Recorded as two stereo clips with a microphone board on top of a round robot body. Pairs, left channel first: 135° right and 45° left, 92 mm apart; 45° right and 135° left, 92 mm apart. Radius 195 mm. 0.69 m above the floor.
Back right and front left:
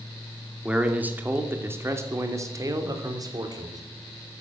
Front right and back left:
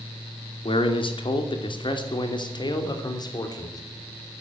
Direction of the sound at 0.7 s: 30° right.